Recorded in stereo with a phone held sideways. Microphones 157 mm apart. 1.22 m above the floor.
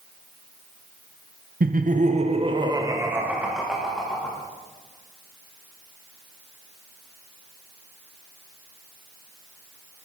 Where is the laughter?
65° right (ahead or behind), 0.9 m; by 4.4 s 5° left (ahead or behind), 1.9 m.